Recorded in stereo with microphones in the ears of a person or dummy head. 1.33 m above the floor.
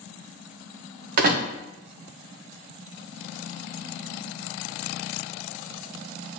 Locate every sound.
1.2 s a door slam: 50° right (ahead or behind), 0.9 m